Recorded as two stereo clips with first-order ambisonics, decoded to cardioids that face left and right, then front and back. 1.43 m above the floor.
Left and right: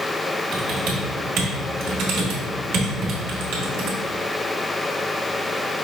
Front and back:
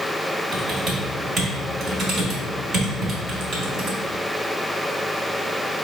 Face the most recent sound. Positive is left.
turn(degrees=-120)